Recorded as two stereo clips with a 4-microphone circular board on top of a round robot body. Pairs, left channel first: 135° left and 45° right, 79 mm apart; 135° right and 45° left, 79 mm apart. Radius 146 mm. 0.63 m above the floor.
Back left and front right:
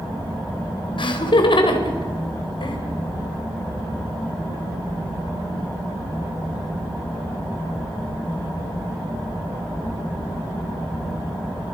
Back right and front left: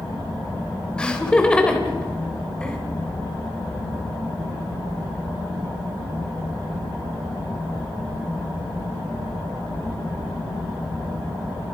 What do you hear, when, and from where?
1.0 s laughter: 145° left, 3 m